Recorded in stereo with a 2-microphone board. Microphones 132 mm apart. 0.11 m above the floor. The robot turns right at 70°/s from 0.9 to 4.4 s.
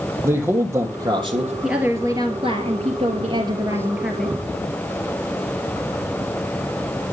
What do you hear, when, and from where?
0.2 s a man speaking: 160° right, 3.5 m; by 1.5 s 115° right, 3.5 m
1.6 s a woman speaking: 175° right, 1.9 m; by 4.4 s 15° left, 1.9 m